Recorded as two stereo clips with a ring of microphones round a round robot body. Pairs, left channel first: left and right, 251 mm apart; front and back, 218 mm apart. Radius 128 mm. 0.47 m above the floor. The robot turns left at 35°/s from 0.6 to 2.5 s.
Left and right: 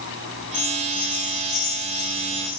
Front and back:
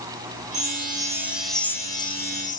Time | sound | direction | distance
0.5 | a chime | 120° left | 2.5 m